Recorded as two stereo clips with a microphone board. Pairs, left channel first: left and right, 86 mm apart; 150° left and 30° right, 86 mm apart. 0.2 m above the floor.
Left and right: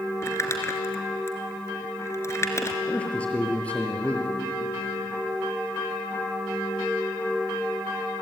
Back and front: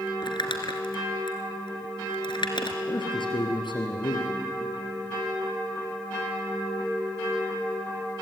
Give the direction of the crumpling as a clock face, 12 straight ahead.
7 o'clock.